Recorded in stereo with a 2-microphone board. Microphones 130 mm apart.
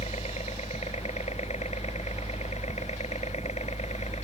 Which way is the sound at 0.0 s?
60° left (ahead or behind).